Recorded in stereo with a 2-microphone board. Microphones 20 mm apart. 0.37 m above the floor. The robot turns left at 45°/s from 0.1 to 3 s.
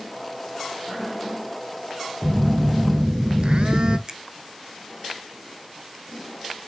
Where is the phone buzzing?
90° right, 0.9 m; by 4.0 s 125° right, 0.9 m.